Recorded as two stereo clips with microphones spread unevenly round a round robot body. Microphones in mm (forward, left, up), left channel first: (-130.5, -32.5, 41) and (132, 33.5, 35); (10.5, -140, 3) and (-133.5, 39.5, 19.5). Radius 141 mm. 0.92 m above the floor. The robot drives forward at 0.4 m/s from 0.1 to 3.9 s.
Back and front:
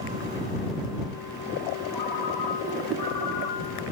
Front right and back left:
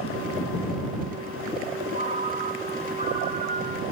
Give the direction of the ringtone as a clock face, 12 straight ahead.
6 o'clock.